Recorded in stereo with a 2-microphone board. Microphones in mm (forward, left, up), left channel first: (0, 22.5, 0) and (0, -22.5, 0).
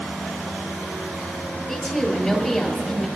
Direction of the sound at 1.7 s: 15° left (ahead or behind).